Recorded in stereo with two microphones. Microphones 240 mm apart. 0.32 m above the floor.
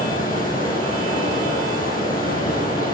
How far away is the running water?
About 5.5 m.